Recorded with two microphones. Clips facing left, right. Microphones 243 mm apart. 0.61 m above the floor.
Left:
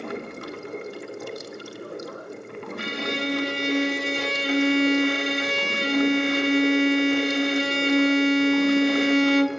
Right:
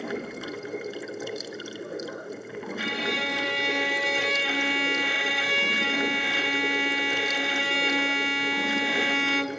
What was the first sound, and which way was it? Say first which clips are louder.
Running water: even; 5° right (ahead or behind).